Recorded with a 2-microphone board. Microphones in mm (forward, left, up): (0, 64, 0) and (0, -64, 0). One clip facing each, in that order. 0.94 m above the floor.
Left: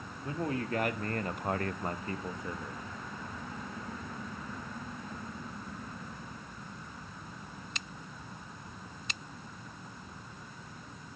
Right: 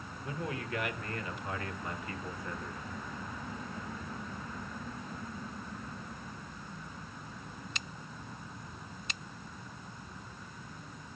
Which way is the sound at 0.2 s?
40° left (ahead or behind).